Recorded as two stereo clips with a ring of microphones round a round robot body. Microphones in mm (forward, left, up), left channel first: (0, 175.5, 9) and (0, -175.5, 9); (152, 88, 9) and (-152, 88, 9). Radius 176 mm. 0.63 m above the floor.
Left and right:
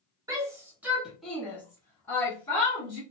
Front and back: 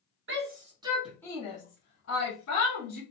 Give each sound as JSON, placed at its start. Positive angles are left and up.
{"t": 0.3, "sound": "a shout", "azimuth_deg": -165, "distance_m": 1.0}